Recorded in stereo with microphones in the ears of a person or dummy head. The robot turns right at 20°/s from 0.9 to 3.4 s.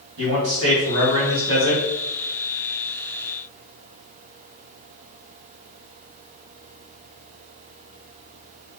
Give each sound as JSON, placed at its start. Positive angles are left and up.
{"t": 0.2, "sound": "a man speaking", "side_deg": -65, "distance_m": 2.0}